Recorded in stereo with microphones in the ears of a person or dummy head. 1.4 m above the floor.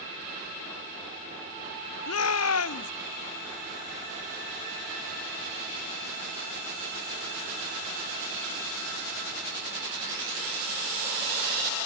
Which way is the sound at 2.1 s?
80° left.